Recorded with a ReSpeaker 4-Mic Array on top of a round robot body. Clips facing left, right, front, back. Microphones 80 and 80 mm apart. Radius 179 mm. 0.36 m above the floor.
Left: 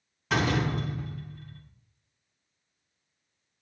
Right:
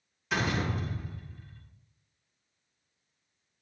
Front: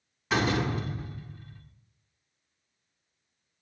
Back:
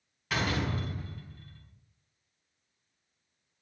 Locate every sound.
0.3 s a door slam: 65° left, 4.5 m